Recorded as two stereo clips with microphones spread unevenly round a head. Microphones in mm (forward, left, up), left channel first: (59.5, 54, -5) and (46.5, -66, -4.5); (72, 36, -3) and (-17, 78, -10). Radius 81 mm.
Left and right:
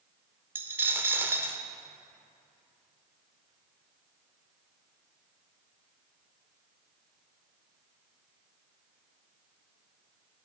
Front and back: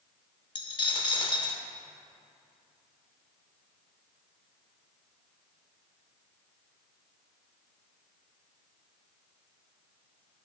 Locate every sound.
0.6 s a dropped coin: 30° right, 0.9 m